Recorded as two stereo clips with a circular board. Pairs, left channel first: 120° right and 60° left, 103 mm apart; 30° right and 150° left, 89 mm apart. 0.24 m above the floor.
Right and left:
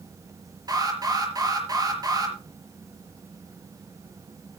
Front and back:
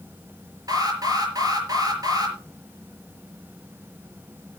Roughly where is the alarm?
Left.